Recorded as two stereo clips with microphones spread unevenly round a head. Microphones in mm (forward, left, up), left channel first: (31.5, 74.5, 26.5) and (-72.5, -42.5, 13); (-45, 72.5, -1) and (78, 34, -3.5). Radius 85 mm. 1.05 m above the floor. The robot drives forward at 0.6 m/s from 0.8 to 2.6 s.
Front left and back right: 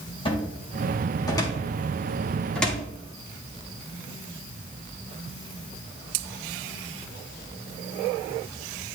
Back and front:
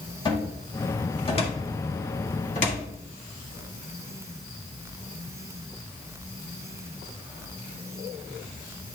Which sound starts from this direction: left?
A cupboard door, at 0.2 s.